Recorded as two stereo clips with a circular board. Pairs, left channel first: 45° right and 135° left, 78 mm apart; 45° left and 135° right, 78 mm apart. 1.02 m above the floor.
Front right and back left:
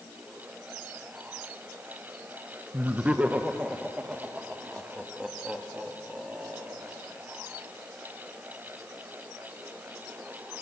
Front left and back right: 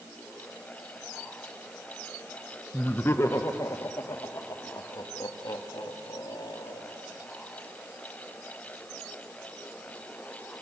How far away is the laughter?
About 0.8 m.